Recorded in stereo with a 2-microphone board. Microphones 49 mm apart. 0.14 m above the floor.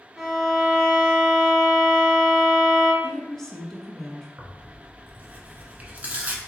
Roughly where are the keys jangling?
No keys jangling in this recording.